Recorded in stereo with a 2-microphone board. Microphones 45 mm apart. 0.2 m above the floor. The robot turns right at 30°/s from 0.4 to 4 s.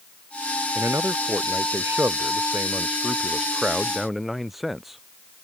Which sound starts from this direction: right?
A man speaking, at 0.8 s.